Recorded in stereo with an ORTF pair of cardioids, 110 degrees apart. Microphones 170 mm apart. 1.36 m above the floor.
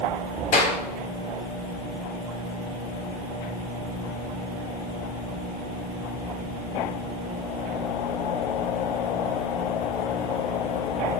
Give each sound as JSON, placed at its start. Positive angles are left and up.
{"t": 0.5, "sound": "a clap", "azimuth_deg": 60, "distance_m": 3.5}